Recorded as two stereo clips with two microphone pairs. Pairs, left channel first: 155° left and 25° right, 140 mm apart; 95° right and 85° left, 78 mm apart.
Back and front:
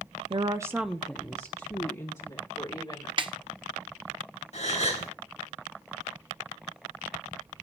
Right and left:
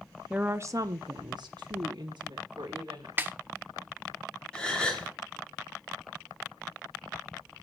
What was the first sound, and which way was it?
A woman speaking, 10° left.